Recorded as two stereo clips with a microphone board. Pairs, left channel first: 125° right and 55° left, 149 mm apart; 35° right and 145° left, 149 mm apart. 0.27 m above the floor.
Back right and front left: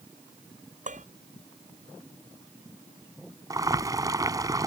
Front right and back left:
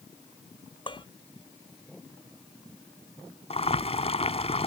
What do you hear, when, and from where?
0.9 s dishes clattering: 20° left
3.5 s boiling: 5° right